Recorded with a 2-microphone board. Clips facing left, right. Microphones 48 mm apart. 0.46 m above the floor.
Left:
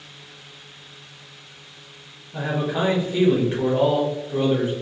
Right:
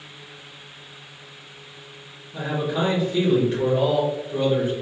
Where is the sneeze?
I don't hear a sneeze.